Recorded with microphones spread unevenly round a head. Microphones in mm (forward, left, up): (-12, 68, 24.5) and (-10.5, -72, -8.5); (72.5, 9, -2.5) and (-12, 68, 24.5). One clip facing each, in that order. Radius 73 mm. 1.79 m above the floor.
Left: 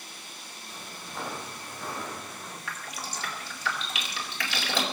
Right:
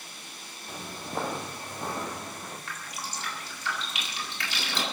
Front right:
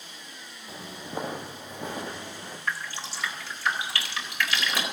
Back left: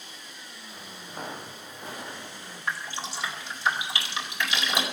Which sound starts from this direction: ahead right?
Footsteps, at 0.7 s.